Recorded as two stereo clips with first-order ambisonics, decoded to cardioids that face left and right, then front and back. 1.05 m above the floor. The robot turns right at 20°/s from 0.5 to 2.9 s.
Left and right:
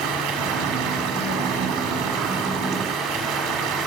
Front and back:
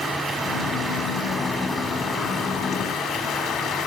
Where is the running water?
100° right, 1.5 m; by 3.9 s 50° right, 1.5 m.